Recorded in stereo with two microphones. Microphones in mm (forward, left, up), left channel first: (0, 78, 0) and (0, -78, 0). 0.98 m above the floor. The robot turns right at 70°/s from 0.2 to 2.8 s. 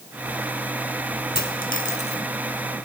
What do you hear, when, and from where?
1.4 s a dropped coin: 85° left, 4 m; by 2.2 s 30° left (ahead or behind), 4 m